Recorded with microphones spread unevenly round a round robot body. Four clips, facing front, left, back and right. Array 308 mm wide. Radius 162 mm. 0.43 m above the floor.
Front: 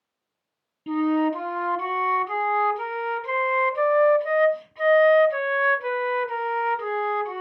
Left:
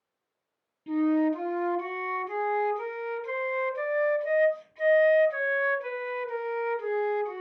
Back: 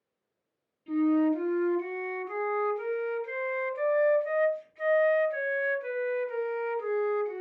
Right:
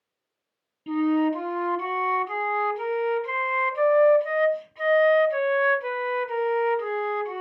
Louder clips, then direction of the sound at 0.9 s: Right 2 dB, front 2 dB; 15° right.